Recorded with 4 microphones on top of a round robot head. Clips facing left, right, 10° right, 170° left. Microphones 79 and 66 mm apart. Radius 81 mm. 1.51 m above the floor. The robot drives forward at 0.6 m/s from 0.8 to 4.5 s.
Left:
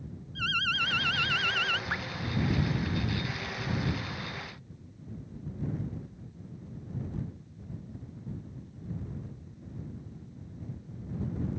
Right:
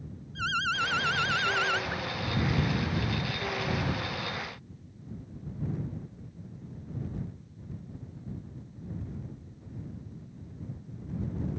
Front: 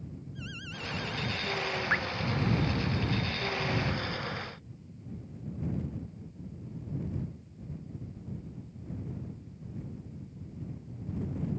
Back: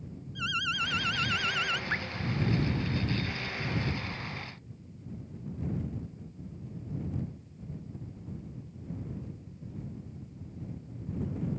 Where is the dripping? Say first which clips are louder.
Left 1 dB, front 4 dB; 50° left.